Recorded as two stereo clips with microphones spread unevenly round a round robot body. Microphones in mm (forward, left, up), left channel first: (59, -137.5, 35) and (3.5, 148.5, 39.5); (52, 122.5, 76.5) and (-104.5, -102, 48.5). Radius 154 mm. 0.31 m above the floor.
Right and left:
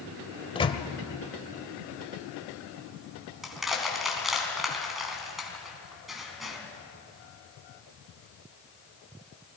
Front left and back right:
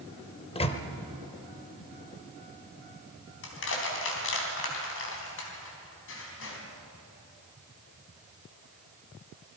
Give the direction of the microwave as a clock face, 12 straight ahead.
12 o'clock.